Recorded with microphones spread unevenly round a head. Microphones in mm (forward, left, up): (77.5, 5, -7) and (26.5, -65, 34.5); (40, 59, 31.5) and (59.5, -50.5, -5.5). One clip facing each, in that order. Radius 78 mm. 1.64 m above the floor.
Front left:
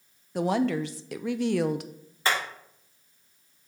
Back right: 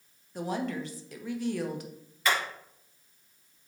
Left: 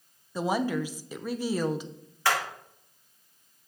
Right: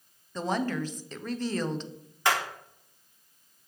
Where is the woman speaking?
30° left, 0.6 m.